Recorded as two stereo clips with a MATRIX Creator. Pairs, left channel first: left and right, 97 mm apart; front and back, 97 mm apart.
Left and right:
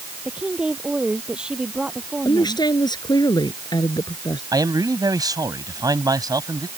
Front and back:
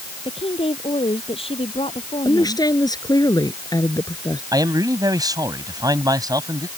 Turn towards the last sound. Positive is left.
turn(degrees=-135)